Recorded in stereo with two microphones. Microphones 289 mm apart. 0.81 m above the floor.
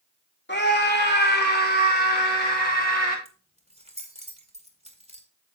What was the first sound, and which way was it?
A scream, 35° left (ahead or behind).